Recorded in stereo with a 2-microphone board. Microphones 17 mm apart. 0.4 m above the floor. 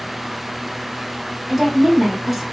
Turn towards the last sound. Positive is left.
turn(degrees=-5)  # may be behind; listen again after turning